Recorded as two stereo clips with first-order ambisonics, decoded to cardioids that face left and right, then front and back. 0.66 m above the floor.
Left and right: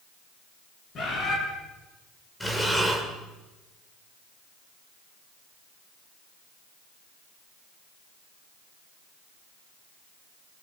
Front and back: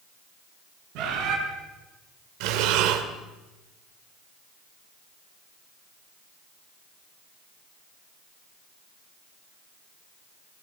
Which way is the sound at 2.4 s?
175° left.